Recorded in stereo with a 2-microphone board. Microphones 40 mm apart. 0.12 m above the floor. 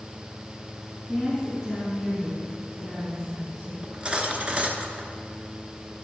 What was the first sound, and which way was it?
A woman speaking, 15° right (ahead or behind).